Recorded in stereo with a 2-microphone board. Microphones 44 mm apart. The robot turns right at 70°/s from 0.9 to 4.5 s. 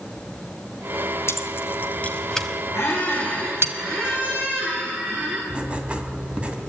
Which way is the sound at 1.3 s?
75° left (ahead or behind).